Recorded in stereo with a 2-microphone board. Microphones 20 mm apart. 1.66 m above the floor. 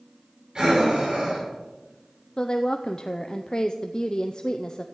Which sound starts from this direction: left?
A woman speaking, at 2.4 s.